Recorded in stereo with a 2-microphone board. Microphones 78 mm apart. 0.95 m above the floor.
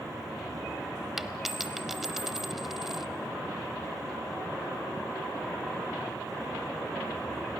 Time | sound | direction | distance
1.2 | a dropped coin | 5° right (ahead or behind) | 0.9 m